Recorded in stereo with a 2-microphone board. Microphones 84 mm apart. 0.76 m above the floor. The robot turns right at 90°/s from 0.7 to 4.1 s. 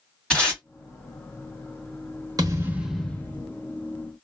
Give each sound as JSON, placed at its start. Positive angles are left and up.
{"t": 0.3, "sound": "tape being pulled", "side_deg": 10, "distance_m": 1.6}
{"t": 2.4, "sound": "a thud", "azimuth_deg": -50, "distance_m": 0.9}